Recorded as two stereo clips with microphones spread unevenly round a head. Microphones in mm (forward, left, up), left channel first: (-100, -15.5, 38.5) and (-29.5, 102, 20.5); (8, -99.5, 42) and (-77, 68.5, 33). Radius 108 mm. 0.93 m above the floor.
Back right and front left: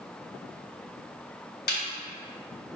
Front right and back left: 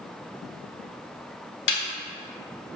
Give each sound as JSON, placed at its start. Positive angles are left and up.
{"t": 1.7, "sound": "a snare drum", "azimuth_deg": -90, "distance_m": 1.4}